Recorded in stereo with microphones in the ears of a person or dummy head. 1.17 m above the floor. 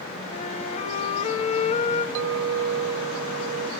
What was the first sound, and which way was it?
A flute, 40° left (ahead or behind).